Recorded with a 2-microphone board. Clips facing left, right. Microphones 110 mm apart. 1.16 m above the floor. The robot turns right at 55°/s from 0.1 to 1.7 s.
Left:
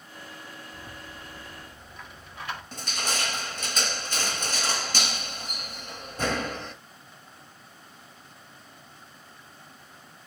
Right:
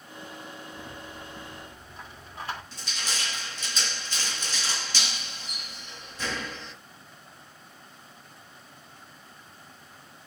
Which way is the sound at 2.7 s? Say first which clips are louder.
Left 5 dB; 50° left (ahead or behind).